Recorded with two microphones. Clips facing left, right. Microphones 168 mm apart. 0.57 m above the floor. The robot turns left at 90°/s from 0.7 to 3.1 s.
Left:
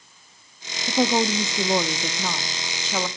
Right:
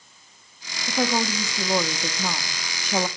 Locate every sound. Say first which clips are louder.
0.9 s a woman speaking: left 3 dB; 15° left (ahead or behind), 0.6 m; by 3.1 s 15° right (ahead or behind), 0.6 m